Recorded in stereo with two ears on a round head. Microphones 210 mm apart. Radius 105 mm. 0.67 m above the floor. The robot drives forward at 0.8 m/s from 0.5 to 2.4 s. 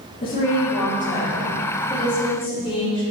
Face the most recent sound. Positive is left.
turn(degrees=25)  # may be behind; listen again after turning